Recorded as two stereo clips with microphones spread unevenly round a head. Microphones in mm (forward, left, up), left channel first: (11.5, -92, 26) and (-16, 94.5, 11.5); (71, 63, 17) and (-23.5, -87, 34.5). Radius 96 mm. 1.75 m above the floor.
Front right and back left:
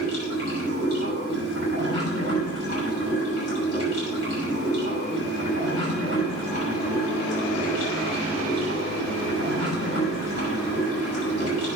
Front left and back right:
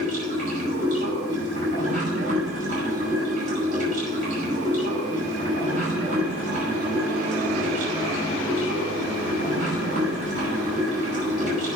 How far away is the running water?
About 6 m.